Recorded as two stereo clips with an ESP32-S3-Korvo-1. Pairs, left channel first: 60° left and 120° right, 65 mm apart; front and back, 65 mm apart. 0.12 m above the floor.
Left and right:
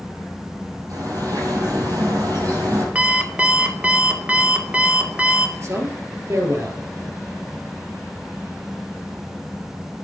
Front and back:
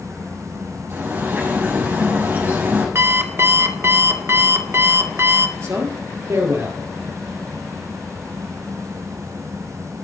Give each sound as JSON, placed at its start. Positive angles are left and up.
{"t": 0.9, "sound": "a bird", "azimuth_deg": -130, "distance_m": 3.5}
{"t": 3.0, "sound": "an alarm clock", "azimuth_deg": 180, "distance_m": 0.9}
{"t": 5.6, "sound": "a man speaking", "azimuth_deg": -150, "distance_m": 2.0}